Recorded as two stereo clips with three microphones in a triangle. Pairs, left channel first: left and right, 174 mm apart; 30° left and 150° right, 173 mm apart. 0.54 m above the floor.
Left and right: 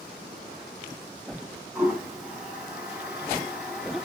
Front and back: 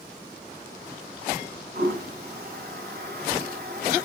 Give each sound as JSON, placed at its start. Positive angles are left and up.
{"t": 1.8, "sound": "a toilet flushing", "azimuth_deg": -175, "distance_m": 2.0}